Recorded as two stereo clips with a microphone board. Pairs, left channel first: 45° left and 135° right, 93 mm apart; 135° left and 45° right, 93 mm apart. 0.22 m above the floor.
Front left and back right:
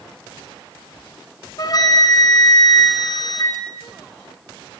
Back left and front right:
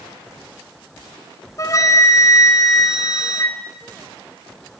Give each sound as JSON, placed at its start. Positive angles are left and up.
{"t": 1.6, "sound": "a flute", "azimuth_deg": 85, "distance_m": 2.0}